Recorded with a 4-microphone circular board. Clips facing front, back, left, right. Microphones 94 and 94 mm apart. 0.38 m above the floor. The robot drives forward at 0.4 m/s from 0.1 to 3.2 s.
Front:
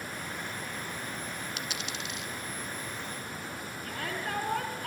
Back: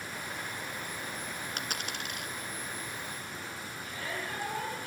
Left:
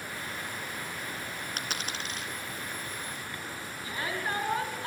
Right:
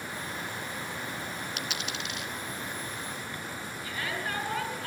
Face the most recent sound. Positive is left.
turn(degrees=25)